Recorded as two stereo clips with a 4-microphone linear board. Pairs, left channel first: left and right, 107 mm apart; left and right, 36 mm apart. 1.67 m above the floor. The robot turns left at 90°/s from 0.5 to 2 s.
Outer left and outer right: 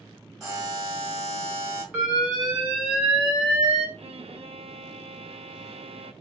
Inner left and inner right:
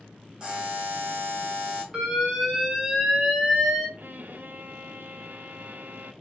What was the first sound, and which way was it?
A buzzer, 30° right.